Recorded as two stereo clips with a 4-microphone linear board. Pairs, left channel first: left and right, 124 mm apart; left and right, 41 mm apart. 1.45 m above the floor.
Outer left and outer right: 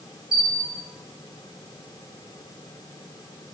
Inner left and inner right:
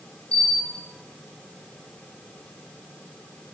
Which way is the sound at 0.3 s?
30° left (ahead or behind).